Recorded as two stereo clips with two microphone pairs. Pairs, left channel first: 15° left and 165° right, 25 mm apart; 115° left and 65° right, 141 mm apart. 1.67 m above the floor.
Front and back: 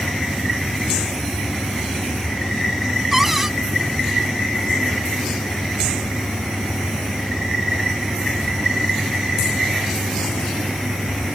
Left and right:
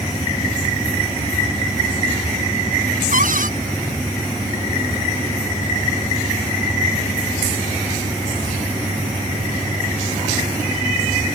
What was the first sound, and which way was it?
A cupboard door, 80° right.